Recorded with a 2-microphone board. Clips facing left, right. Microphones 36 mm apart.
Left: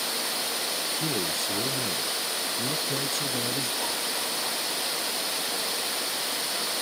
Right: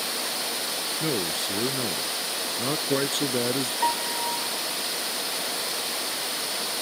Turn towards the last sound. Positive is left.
turn(degrees=-65)  # may be behind; listen again after turning